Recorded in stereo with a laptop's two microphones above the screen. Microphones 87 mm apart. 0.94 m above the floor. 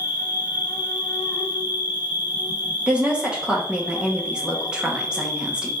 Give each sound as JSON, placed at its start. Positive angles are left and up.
{"t": 0.0, "sound": "an insect", "side_deg": 60, "distance_m": 1.5}
{"t": 2.9, "sound": "a woman speaking", "side_deg": -10, "distance_m": 0.8}